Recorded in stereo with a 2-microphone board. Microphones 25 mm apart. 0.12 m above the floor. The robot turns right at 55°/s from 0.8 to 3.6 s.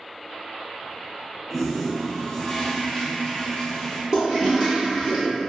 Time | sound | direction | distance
1.5 | a toilet flushing | 10° right | 1.0 m
4.1 | a toilet flushing | 35° right (ahead or behind) | 1.4 m